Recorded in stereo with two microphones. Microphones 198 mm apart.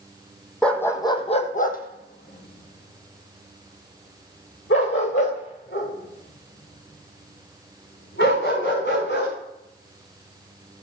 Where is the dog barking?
5° left (ahead or behind), 1.4 m; by 9.3 s 75° left (ahead or behind), 7.5 m.